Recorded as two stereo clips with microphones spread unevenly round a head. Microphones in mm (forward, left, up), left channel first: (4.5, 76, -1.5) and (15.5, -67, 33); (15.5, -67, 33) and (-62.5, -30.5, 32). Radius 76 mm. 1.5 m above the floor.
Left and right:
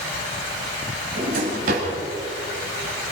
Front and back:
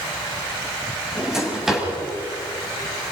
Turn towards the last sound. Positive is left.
turn(degrees=-120)